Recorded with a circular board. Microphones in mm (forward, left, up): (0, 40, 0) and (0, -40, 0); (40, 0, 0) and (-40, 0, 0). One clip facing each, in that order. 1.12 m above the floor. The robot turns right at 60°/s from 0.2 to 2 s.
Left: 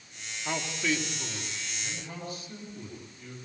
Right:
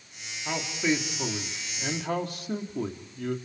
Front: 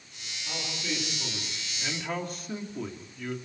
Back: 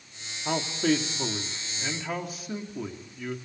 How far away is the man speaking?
About 3 m.